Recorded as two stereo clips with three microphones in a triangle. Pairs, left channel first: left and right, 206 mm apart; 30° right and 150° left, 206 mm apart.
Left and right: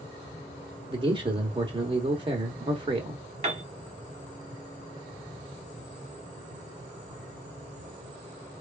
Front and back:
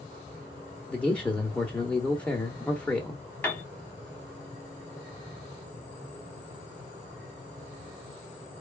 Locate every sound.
0.9 s a man speaking: 105° right, 0.9 m
3.4 s a piano: 105° right, 1.5 m